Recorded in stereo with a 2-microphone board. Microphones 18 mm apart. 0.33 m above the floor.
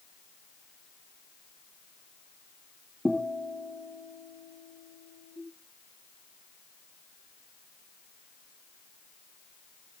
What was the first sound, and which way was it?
A guitar, 35° right (ahead or behind).